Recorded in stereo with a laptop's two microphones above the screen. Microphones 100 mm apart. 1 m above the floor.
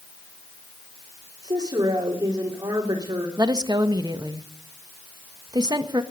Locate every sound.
1.4 s a woman speaking: 50° right (ahead or behind), 2.5 m
3.4 s a woman speaking: 45° right (ahead or behind), 1.5 m